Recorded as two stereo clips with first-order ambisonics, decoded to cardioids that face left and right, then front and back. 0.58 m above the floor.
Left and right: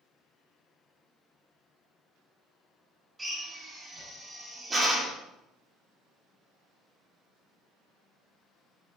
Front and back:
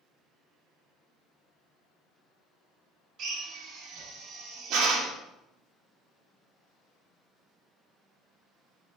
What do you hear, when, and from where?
3.2 s a drill: 160° right, 1.8 m